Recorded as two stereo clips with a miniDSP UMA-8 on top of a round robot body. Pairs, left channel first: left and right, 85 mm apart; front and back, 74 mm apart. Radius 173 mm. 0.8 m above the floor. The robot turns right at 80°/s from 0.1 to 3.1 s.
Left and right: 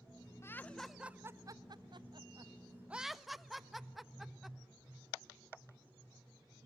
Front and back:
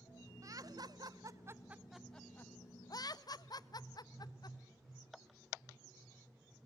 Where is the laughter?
145° left, 1.5 m; by 4.6 s straight ahead, 1.5 m.